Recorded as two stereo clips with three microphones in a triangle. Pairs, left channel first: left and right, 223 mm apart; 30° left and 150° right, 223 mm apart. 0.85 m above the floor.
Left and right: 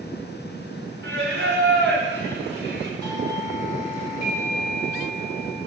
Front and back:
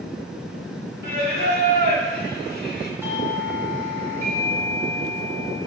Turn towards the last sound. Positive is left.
turn(degrees=135)